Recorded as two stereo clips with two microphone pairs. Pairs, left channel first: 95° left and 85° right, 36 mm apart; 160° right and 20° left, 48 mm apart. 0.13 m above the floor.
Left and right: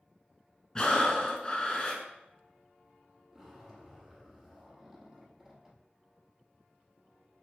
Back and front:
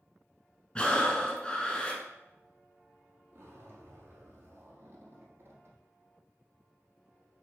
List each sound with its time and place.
0.8 s breathing: 140° left, 0.9 m
3.3 s a zipper: 10° right, 1.5 m